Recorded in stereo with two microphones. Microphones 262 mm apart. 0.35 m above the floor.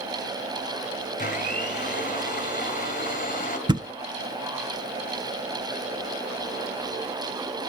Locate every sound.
1.2 s a blender: 30° left (ahead or behind), 2 m
3.7 s a thud: 15° right (ahead or behind), 0.6 m